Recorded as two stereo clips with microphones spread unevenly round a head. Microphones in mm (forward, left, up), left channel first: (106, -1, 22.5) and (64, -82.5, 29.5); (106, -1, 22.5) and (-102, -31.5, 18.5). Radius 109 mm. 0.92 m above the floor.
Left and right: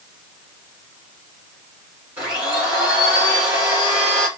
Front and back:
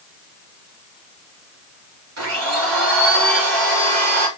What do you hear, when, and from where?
2.2 s a blender: 165° left, 3.5 m